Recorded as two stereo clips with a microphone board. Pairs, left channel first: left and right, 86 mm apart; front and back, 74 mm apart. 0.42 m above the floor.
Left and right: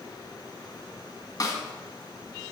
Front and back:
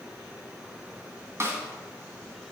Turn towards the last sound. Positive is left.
turn(degrees=135)